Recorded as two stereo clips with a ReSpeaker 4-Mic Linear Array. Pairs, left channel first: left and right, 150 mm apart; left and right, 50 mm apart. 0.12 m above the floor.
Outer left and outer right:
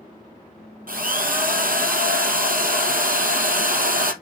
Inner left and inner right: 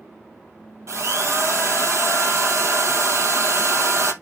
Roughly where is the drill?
Right.